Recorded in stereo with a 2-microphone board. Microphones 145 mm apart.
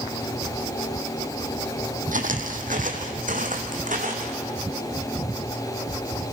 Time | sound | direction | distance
2.1 | footsteps | 65° right (ahead or behind) | 1.9 m